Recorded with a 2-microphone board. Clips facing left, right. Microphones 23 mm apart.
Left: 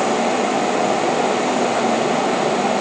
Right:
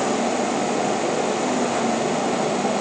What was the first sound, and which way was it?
Only background noise.